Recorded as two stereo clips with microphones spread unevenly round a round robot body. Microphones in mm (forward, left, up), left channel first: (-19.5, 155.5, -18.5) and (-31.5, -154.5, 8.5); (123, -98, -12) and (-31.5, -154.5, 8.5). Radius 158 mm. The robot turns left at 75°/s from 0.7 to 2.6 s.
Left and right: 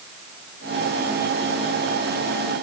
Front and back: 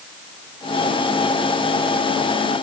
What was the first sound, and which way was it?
Only background noise.